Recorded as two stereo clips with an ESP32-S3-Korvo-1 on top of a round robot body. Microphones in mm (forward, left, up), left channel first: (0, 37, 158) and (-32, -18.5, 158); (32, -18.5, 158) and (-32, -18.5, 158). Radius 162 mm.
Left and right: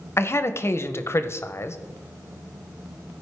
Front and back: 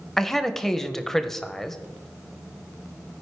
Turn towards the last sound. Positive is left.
turn(degrees=80)